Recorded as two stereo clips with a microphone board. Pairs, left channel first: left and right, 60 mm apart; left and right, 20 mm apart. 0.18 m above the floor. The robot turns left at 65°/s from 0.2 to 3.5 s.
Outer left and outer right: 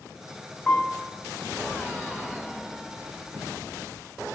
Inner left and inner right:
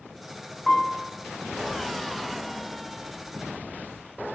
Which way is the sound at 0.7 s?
35° left (ahead or behind).